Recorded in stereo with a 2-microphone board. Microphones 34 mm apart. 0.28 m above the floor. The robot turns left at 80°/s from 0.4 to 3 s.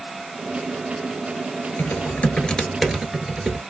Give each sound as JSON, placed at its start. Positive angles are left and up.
{"t": 1.8, "sound": "typing on a keyboard", "azimuth_deg": 85, "distance_m": 1.2}